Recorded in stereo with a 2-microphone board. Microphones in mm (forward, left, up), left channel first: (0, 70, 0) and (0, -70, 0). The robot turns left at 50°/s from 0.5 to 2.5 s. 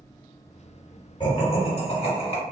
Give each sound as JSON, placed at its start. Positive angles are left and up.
{"t": 1.2, "sound": "laughter", "azimuth_deg": 130, "distance_m": 1.6}